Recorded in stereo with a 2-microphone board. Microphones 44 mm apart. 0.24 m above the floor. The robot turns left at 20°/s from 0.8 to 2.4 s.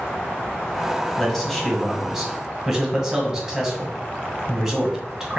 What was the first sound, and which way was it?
A man speaking, 5° left (ahead or behind).